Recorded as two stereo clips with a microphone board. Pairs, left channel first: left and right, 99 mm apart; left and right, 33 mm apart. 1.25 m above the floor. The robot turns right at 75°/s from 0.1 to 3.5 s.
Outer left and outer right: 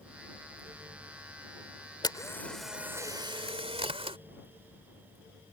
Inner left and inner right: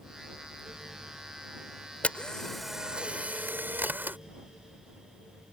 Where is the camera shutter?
135° left; by 4.2 s 115° right.